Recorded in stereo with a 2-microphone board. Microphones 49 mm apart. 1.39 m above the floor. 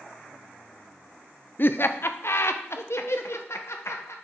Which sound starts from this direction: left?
Laughter, at 1.6 s.